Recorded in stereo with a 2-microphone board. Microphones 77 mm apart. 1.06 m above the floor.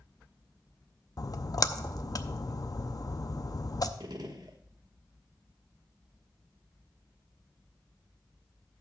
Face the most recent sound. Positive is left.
turn(degrees=-65)  # may be behind; listen again after turning